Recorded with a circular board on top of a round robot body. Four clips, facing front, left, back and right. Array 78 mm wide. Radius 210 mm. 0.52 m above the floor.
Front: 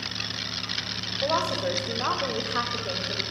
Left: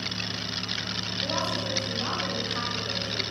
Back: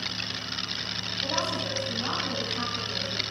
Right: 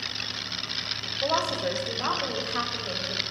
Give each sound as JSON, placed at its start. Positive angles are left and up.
{"t": 1.2, "sound": "a woman speaking", "azimuth_deg": -35, "distance_m": 4.0}